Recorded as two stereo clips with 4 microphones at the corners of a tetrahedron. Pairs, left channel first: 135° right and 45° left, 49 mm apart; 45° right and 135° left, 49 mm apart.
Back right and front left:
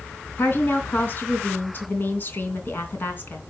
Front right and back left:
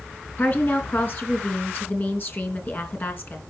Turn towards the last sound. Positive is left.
turn(degrees=-90)